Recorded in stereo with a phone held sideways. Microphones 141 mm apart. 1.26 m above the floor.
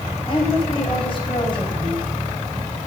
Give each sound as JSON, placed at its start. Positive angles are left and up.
{"t": 0.3, "sound": "a woman speaking", "side_deg": 40, "distance_m": 9.0}